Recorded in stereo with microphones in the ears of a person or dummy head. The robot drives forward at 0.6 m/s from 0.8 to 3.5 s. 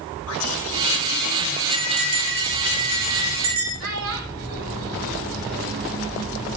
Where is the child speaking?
80° right, 6 m.